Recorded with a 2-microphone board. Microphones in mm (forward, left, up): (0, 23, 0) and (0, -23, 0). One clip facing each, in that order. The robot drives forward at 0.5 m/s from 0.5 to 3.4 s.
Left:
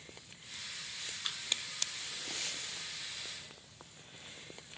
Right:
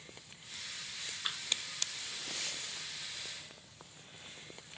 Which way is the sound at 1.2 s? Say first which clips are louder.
Right 3 dB; 20° right (ahead or behind).